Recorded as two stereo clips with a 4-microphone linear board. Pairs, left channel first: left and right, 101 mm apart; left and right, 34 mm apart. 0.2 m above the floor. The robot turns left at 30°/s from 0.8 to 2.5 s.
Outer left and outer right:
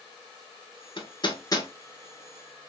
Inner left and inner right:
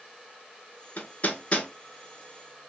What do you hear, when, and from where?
1.0 s hammering: 55° left (ahead or behind), 0.7 m; by 1.7 s 35° left (ahead or behind), 0.7 m